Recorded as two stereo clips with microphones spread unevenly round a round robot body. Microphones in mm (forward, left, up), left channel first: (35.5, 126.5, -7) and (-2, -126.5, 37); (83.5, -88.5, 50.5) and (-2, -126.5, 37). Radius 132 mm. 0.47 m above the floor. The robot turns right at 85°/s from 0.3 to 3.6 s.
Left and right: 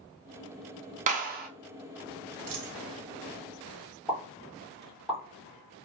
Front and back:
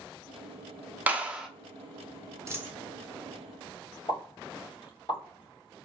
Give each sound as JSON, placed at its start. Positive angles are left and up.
{"t": 1.1, "sound": "a clap", "azimuth_deg": -145, "distance_m": 0.5}
{"t": 2.5, "sound": "a dropped coin", "azimuth_deg": -95, "distance_m": 1.1}
{"t": 4.1, "sound": "a pop", "azimuth_deg": 5, "distance_m": 1.7}